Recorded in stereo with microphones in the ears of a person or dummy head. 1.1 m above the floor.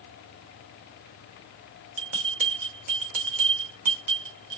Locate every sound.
2.0 s a bell: 50° right (ahead or behind), 1.1 m